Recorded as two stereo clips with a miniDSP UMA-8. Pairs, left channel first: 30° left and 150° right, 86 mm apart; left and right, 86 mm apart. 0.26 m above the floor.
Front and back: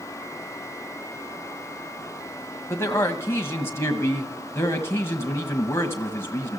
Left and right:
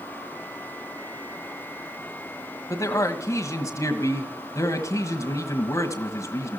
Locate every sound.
2.7 s a man speaking: 70° left, 1.6 m